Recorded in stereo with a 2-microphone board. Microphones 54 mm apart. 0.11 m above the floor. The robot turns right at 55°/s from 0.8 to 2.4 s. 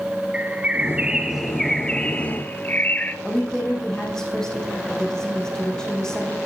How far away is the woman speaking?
About 5.5 m.